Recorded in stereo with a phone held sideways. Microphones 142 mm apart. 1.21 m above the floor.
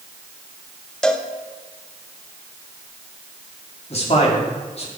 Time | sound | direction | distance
1.0 | a cowbell | 5° left (ahead or behind) | 0.8 m
3.9 | a man speaking | 45° left (ahead or behind) | 2.5 m